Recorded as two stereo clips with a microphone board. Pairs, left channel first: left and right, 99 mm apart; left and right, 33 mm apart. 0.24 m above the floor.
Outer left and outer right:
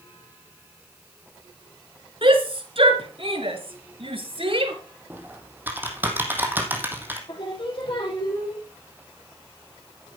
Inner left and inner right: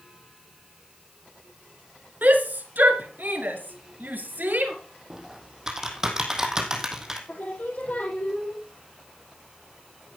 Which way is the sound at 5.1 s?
20° right (ahead or behind).